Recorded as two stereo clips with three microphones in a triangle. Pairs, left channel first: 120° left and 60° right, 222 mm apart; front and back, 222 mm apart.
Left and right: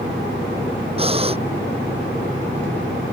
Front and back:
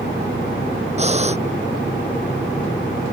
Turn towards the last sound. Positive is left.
turn(degrees=-120)